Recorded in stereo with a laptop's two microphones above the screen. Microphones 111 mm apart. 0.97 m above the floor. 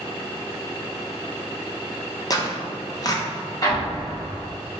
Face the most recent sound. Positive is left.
turn(degrees=30)  # may be behind; listen again after turning